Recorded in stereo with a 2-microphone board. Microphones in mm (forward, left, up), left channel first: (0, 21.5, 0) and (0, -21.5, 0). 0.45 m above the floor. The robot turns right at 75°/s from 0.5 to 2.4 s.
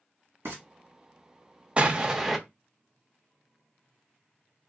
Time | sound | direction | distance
0.5 | frying | 90° right | 1.8 m
1.8 | an explosion | 50° right | 0.6 m